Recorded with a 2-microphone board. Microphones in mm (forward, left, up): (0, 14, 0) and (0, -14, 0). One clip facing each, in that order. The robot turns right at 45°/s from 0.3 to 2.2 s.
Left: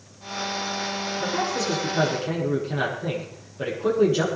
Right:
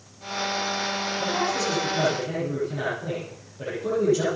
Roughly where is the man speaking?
Ahead.